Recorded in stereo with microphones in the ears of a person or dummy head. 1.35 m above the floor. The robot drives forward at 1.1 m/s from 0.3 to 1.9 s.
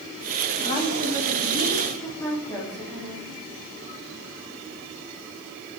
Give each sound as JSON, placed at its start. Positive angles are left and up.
{"t": 0.7, "sound": "a woman speaking", "side_deg": 35, "distance_m": 1.4}